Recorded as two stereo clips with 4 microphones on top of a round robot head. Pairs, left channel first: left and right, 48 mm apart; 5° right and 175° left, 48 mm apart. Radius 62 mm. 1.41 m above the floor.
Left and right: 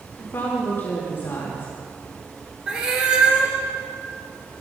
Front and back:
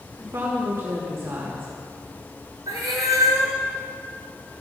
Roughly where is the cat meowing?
Behind.